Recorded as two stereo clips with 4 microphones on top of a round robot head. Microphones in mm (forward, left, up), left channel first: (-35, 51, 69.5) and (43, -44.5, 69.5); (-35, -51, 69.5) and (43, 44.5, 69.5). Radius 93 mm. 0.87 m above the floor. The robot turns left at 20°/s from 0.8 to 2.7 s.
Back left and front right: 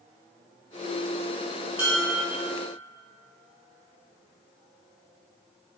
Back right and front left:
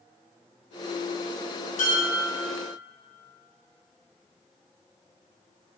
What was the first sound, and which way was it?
Dishes clattering, 130° right.